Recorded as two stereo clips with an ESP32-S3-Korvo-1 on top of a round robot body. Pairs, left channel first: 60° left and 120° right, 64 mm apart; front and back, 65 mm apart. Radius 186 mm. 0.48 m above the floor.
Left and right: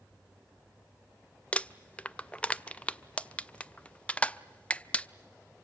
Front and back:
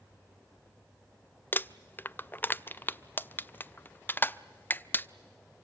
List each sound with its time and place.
1.5 s crumpling: 10° left, 0.7 m